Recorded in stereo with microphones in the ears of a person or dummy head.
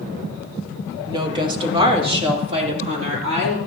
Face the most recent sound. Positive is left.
turn(degrees=-45)  # may be behind; listen again after turning